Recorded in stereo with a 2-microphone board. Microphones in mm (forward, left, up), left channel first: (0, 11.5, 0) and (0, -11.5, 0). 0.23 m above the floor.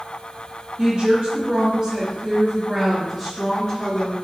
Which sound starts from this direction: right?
A woman speaking, at 0.8 s.